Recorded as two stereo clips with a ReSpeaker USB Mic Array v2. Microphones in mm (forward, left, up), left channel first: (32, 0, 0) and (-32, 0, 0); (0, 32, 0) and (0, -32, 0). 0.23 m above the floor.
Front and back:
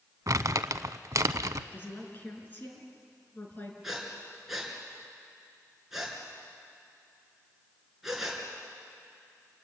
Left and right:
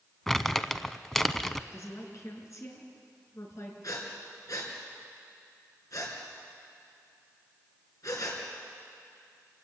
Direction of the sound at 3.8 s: 95° left.